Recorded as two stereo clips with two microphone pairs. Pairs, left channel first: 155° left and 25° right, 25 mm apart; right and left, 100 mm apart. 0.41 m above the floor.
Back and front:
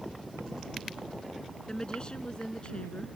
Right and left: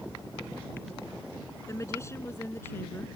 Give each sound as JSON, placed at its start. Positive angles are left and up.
{"t": 1.7, "sound": "a woman speaking", "azimuth_deg": -150}